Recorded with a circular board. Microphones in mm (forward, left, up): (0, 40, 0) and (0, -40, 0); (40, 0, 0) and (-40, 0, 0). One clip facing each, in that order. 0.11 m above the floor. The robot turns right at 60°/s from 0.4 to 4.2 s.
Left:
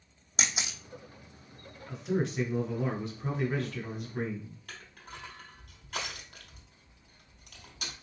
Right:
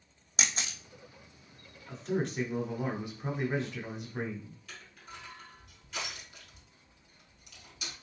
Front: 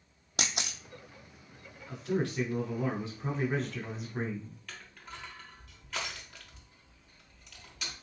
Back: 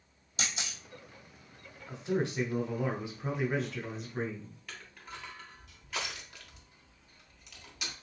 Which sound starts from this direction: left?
Crushing, at 4.7 s.